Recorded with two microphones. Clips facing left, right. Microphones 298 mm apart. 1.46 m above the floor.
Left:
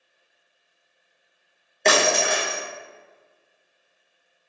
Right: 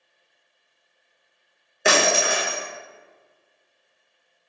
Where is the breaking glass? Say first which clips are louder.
Even; 10° right (ahead or behind), 0.7 m.